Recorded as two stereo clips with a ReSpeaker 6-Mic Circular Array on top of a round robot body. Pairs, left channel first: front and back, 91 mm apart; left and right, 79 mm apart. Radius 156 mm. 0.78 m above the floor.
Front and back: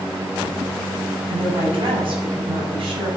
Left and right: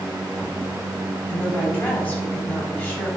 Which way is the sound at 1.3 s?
155° left.